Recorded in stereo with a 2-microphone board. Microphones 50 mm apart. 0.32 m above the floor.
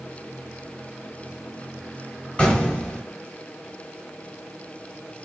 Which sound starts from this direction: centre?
An explosion, at 2.4 s.